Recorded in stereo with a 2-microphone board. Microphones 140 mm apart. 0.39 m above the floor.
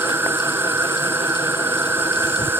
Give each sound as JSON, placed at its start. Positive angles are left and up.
{"t": 0.0, "sound": "an insect", "side_deg": -15}